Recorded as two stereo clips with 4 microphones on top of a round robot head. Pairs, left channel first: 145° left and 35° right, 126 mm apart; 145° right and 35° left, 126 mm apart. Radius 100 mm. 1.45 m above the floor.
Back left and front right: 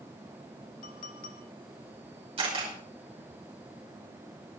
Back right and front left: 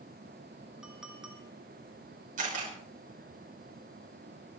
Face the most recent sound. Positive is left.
turn(degrees=10)